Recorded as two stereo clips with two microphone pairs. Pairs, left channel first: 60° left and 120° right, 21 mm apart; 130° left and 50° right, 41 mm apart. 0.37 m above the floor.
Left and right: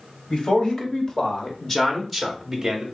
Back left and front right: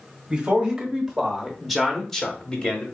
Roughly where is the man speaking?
Ahead.